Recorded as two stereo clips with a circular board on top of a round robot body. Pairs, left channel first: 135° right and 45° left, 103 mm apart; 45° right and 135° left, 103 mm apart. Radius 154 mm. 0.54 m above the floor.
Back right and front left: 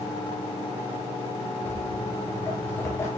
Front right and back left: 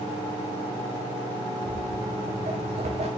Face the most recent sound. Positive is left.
turn(degrees=155)